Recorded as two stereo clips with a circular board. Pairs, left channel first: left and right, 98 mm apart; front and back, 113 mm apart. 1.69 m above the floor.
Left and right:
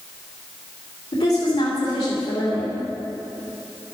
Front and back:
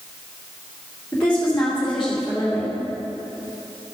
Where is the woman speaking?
85° left, 2.5 m.